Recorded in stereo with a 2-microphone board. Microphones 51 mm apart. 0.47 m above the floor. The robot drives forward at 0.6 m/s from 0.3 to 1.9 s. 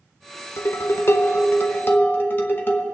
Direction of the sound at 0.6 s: 60° left (ahead or behind).